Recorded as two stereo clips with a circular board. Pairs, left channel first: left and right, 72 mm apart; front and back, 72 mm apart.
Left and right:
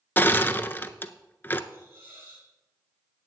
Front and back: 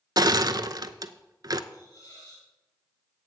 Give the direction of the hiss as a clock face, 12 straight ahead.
1 o'clock.